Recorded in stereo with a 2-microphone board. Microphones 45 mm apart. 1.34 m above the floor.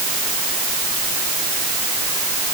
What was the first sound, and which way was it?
Only background noise.